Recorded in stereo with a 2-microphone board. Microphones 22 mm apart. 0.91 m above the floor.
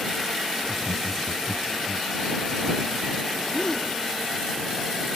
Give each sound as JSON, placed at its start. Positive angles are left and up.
{"t": 0.6, "sound": "laughter", "side_deg": 20}
{"t": 3.5, "sound": "a gasp", "side_deg": 35}